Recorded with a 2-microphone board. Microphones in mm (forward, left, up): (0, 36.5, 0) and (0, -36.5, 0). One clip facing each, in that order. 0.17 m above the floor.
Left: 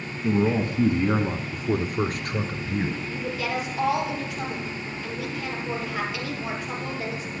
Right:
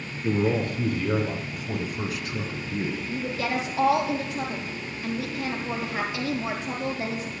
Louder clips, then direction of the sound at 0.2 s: Left 1 dB; 15° left (ahead or behind).